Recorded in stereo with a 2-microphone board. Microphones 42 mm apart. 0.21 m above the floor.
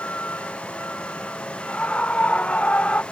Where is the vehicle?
50° left (ahead or behind); by 3.1 s 35° left (ahead or behind).